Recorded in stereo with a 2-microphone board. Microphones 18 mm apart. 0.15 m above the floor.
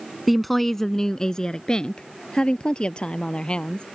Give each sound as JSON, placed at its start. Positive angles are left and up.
{"t": 0.3, "sound": "a woman speaking", "side_deg": 0}